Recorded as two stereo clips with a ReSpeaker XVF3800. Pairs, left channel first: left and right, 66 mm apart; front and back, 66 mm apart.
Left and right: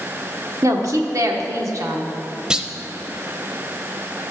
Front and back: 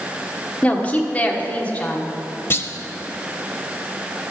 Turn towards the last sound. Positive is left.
turn(degrees=-20)